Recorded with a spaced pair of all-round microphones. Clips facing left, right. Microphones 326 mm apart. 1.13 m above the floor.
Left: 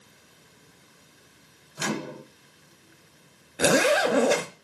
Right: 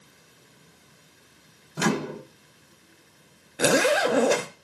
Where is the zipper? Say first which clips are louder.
Even; centre (ahead or behind), 1.0 m.